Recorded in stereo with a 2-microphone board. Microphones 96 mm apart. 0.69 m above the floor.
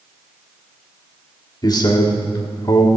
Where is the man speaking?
40° left (ahead or behind), 1.7 m.